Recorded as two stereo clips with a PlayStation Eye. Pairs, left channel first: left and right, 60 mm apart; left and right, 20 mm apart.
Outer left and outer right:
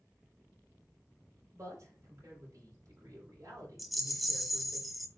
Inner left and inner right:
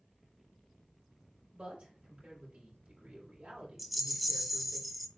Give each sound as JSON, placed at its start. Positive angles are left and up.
{"t": 1.5, "sound": "a man speaking", "side_deg": -55, "distance_m": 4.5}
{"t": 3.8, "sound": "a rattle", "side_deg": 0, "distance_m": 0.9}